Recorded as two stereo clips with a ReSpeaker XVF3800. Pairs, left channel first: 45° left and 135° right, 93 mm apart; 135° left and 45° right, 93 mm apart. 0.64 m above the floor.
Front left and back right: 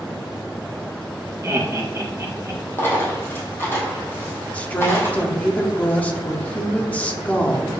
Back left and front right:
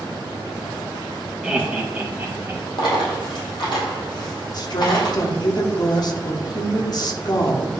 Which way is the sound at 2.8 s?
105° left.